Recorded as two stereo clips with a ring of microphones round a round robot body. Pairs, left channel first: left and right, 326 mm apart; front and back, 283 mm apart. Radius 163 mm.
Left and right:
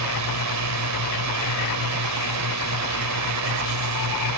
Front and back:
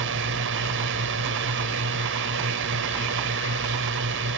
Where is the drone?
125° right.